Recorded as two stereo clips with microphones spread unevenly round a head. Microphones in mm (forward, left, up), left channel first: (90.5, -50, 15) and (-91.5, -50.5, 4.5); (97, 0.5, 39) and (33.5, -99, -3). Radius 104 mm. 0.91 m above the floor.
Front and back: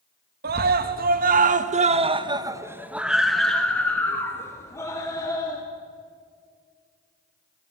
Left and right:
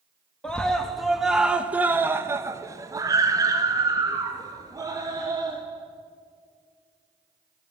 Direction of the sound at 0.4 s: 155° left.